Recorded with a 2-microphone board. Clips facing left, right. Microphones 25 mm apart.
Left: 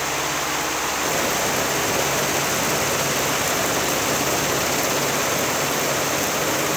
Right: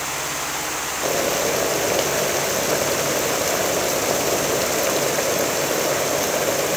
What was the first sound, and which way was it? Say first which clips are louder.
Boiling: right 4 dB; 45° right (ahead or behind).